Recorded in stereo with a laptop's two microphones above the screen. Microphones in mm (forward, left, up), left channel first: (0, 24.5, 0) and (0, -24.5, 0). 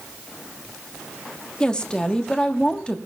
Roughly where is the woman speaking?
Centre.